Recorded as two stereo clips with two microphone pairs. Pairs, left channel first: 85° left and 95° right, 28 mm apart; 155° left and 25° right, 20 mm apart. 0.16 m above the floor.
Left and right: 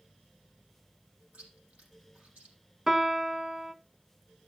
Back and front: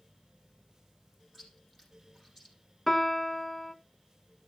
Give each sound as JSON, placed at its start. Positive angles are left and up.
{"t": 1.3, "sound": "chewing", "azimuth_deg": -105, "distance_m": 4.5}
{"t": 2.9, "sound": "a piano", "azimuth_deg": -135, "distance_m": 0.7}